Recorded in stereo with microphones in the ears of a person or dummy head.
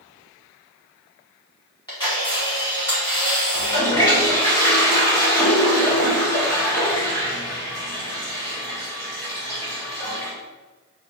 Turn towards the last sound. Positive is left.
turn(degrees=25)  # may be behind; listen again after turning